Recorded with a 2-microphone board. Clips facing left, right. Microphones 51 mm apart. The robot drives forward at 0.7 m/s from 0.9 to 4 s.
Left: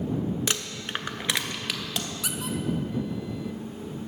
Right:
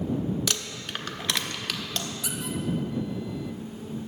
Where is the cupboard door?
I don't hear a cupboard door.